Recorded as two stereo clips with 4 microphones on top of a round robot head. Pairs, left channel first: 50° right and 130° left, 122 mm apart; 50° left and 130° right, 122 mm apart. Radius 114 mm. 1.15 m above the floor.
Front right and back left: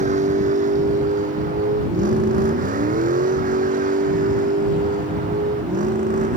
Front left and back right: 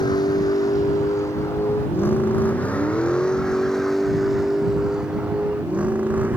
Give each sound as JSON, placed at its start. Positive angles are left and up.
{"t": 0.0, "sound": "a vehicle", "azimuth_deg": 110}